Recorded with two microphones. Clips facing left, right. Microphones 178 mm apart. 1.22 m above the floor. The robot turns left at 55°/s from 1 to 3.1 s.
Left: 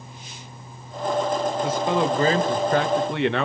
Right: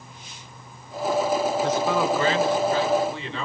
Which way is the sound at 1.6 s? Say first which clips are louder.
Even; 175° left.